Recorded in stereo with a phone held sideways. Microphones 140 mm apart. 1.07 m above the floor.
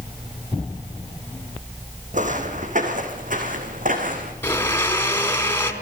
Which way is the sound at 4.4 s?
15° left (ahead or behind).